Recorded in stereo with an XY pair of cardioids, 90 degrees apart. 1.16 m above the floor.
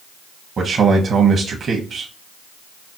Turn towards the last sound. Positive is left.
turn(degrees=-50)